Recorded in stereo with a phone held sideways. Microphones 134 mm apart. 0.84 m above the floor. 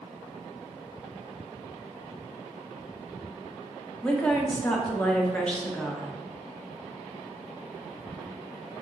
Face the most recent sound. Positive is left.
turn(degrees=10)  # may be behind; listen again after turning